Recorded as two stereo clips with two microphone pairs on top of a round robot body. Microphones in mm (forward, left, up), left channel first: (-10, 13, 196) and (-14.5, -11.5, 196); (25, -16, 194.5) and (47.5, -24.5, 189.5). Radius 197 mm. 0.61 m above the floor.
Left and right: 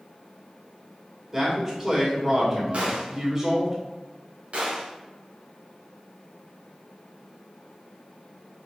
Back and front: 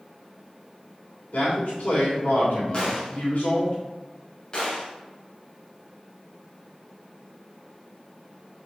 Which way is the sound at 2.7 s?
145° right.